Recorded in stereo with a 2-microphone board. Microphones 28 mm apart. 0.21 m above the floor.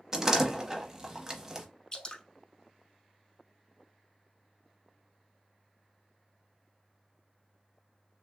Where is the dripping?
30° left (ahead or behind), 0.7 m.